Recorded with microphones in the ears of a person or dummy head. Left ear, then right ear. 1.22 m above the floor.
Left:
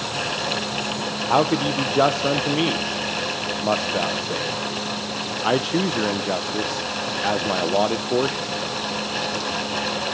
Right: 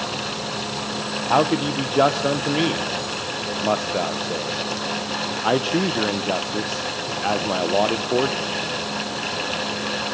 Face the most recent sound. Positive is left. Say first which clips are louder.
# even
turn(degrees=5)  # may be behind; listen again after turning